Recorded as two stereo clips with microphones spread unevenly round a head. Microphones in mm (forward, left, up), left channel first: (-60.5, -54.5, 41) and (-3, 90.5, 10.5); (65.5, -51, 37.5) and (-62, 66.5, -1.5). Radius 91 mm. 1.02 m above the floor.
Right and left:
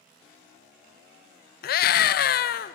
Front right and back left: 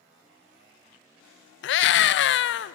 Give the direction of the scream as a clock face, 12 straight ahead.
2 o'clock.